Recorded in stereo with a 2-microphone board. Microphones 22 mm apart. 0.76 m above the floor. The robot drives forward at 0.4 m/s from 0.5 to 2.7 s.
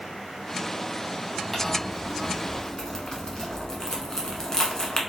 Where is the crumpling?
25° left (ahead or behind), 1.2 m; by 5.0 s 30° left (ahead or behind), 1.0 m.